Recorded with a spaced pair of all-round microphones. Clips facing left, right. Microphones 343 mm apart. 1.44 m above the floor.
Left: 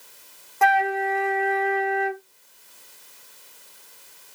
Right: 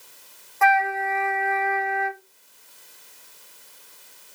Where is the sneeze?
No sneeze in this recording.